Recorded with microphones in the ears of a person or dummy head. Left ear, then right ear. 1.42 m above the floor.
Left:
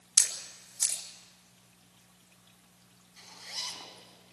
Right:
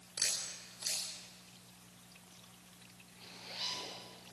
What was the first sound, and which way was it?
A camera shutter, 70° left (ahead or behind).